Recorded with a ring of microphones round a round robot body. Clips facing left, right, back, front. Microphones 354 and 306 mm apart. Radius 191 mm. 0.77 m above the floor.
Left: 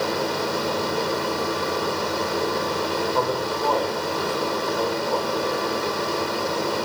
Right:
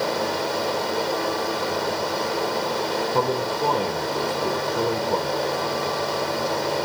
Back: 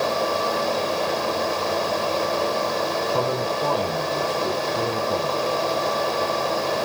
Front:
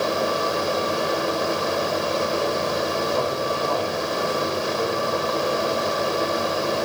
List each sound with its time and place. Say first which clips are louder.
3.1 s a man speaking: right 1 dB, even; 145° right, 3.5 m